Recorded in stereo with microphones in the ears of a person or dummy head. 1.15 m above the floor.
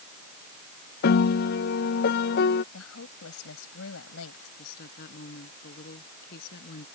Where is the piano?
50° left (ahead or behind).